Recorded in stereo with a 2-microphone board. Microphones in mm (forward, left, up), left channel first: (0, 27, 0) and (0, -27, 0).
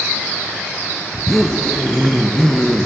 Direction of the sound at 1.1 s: 5° left (ahead or behind).